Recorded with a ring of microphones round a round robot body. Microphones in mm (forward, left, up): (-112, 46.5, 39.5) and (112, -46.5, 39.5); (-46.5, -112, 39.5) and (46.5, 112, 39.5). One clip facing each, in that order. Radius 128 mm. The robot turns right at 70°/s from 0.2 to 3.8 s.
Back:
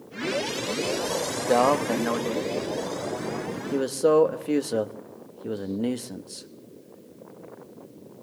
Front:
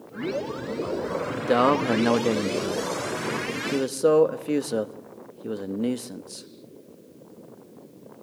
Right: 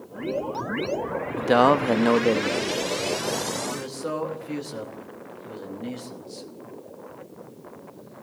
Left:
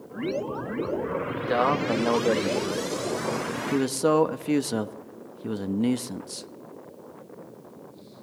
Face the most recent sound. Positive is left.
turn(degrees=65)